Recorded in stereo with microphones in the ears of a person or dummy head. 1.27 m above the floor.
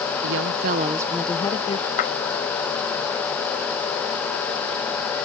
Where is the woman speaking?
70° right (ahead or behind); by 1.9 s 35° left (ahead or behind).